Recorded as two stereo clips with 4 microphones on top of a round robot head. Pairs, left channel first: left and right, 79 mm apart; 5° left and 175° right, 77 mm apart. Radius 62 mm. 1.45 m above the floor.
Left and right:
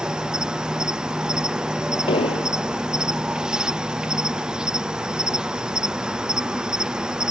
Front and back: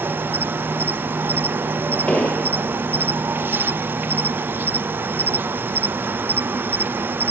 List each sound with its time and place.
0.0 s an insect: 155° right
2.1 s an explosion: 80° left